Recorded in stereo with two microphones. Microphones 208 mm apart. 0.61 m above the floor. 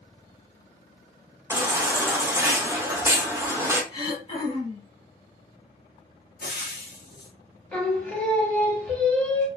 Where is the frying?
55° left (ahead or behind), 0.9 m.